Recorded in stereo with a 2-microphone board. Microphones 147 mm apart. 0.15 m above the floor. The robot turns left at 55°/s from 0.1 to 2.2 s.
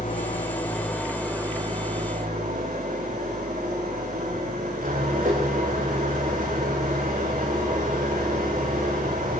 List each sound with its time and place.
0.0 s an engine running: 60° left, 6.5 m; by 9.4 s 55° right, 6.5 m